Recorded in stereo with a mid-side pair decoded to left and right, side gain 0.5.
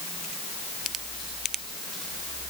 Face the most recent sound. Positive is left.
No sound to turn to.